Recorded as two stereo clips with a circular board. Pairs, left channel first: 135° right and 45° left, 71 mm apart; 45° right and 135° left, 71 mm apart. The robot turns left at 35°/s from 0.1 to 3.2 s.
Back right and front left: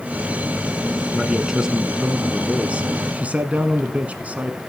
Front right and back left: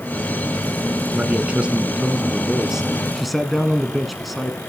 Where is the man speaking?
120° left, 1.0 m; by 4.6 s 50° left, 1.0 m.